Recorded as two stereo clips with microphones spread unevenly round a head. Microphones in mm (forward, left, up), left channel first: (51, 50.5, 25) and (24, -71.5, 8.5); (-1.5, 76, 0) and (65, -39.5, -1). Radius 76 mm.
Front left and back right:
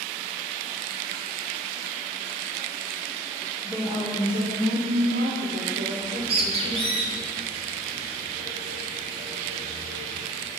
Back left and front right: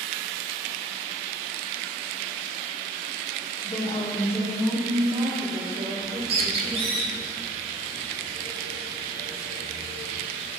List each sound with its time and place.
3.6 s a woman speaking: 175° left, 2.5 m; by 7.0 s 80° right, 4 m
6.0 s a bird: 80° right, 1.5 m